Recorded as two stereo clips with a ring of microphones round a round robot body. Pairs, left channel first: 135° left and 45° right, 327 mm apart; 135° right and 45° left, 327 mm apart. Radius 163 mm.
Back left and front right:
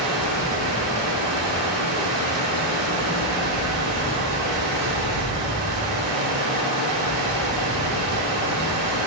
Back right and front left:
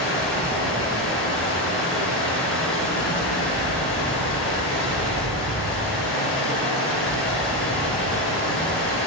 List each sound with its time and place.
0.0 s running water: 80° right, 3 m